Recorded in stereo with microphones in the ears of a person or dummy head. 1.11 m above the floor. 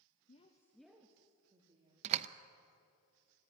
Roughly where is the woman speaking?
Left.